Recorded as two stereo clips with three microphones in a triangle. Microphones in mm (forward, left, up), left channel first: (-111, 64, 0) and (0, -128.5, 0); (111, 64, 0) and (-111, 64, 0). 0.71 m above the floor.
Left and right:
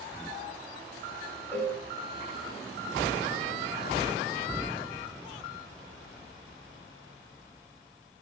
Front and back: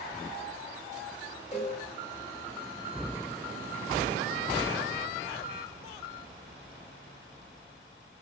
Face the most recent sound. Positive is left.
turn(degrees=45)